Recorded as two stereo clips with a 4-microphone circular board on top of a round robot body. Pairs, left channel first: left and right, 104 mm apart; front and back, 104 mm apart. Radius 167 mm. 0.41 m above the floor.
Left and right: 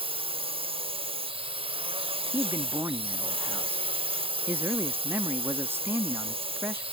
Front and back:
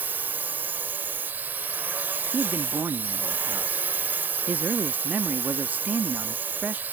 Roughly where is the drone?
Right.